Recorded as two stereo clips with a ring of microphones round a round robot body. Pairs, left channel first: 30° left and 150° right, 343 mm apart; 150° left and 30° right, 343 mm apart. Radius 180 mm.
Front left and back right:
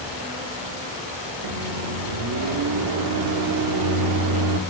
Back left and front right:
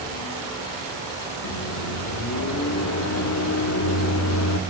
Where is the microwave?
170° right, 1.0 m.